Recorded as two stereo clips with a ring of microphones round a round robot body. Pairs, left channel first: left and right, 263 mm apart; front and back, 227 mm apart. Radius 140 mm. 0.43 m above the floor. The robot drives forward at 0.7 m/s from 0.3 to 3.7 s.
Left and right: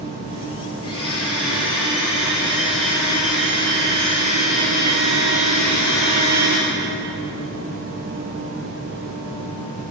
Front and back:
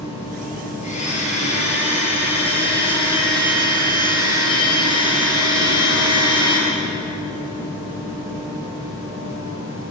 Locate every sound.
0.8 s a blender: 55° left, 8 m; by 6.6 s 70° left, 7 m